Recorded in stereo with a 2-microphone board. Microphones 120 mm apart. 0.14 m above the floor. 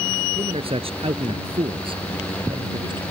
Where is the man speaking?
55° right (ahead or behind); by 3.0 s 45° right (ahead or behind).